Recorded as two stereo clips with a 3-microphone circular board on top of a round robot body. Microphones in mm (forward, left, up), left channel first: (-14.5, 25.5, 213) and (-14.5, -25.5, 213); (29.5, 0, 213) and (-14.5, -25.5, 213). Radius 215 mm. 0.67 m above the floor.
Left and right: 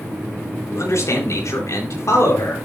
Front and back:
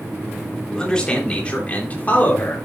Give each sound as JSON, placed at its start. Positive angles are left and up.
{"t": 0.7, "sound": "a man speaking", "azimuth_deg": 105, "distance_m": 4.0}